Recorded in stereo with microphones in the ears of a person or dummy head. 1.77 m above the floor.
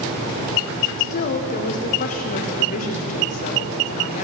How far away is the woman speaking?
About 0.7 m.